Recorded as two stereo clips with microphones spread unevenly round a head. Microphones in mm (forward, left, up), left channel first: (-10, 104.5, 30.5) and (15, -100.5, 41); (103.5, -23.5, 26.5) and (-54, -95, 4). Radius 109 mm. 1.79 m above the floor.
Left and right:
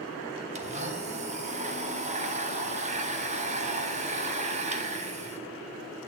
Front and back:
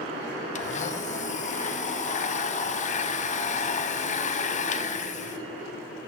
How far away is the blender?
About 1.4 m.